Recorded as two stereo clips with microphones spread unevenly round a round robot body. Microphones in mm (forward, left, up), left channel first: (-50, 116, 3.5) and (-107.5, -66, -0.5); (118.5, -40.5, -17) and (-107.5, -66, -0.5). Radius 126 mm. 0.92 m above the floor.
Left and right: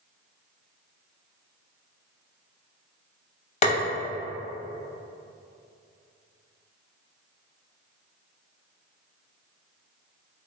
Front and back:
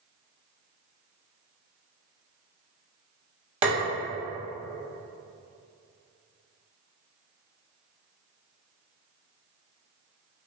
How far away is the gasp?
No gasp in this recording.